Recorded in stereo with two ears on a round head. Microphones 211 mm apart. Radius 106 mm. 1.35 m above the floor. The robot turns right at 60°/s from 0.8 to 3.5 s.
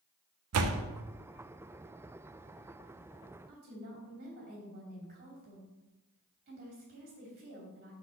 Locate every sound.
0.5 s a door slam: 70° right (ahead or behind), 0.7 m; by 0.8 s 65° right (ahead or behind), 0.7 m
3.5 s a woman speaking: 40° right (ahead or behind), 3 m